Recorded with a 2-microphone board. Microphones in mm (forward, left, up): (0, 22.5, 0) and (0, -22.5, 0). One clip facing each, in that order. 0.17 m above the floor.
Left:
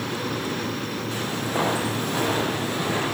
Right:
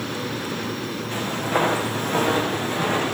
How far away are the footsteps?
About 8 m.